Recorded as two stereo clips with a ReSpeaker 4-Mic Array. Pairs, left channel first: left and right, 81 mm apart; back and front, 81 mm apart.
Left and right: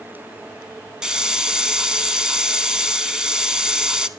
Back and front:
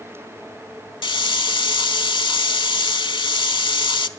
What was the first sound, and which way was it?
A hiss, 170° right.